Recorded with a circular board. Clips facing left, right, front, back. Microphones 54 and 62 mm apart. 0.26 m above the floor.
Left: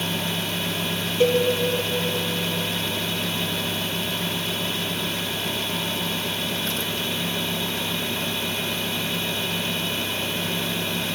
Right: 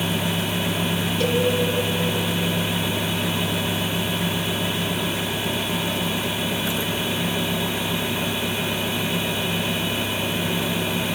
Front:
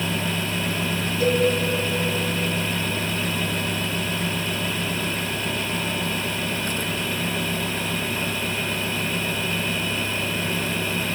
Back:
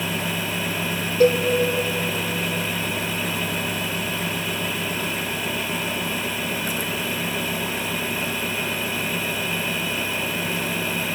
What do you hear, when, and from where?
1.2 s a cowbell: 160° left, 0.7 m